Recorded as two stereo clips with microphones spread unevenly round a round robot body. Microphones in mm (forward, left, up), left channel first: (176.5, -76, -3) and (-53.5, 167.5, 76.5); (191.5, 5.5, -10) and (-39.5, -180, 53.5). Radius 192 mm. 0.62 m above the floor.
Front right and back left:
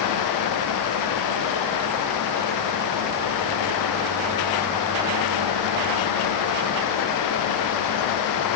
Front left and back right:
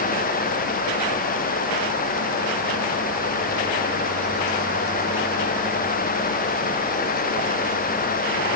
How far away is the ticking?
No ticking in this recording.